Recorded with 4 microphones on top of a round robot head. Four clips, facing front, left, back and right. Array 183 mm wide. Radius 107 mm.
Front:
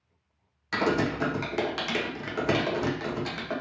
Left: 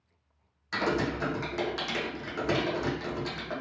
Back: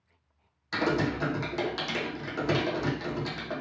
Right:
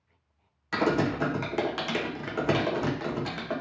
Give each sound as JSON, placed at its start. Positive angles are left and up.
{"t": 0.7, "sound": "typing on a keyboard", "azimuth_deg": -65, "distance_m": 0.9}